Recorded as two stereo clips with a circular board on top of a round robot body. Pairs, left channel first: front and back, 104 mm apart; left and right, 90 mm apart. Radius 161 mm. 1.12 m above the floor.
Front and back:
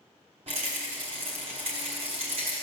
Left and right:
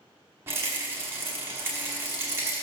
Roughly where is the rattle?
Behind right.